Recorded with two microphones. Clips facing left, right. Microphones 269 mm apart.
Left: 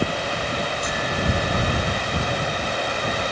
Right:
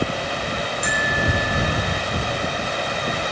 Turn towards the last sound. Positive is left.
turn(degrees=-20)  # may be behind; listen again after turning